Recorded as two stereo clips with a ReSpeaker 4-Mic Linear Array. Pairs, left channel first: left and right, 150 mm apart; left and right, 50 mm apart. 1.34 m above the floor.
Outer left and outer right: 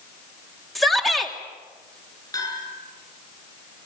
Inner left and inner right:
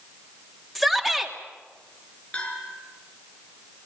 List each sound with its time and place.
0.8 s a shout: centre (ahead or behind), 3 m
2.3 s a bell: 25° left (ahead or behind), 7 m